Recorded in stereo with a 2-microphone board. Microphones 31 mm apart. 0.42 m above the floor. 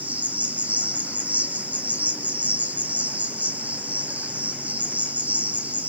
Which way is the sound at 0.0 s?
55° right (ahead or behind).